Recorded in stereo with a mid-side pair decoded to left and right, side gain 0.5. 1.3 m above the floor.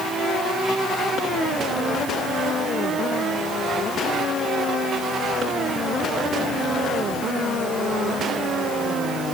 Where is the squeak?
No squeak in this recording.